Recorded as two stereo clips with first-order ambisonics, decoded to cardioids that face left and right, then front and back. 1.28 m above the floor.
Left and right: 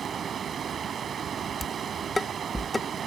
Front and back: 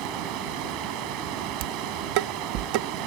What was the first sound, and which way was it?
Running water, 155° right.